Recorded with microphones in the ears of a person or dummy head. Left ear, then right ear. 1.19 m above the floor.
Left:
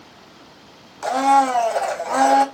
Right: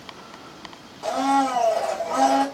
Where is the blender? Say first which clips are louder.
Left 5 dB; 55° left (ahead or behind), 0.5 m.